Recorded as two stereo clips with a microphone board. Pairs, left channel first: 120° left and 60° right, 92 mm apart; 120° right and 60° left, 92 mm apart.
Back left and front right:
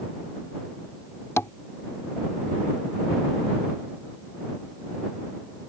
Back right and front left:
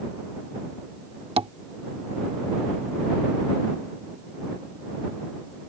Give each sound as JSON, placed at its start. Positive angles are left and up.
{"t": 1.4, "sound": "tapping", "azimuth_deg": 60}